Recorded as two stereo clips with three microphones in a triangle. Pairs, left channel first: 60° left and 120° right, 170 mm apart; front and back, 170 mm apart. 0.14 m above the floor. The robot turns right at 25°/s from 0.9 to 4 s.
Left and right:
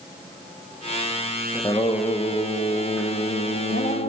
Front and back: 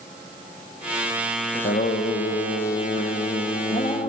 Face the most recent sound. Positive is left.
turn(degrees=50)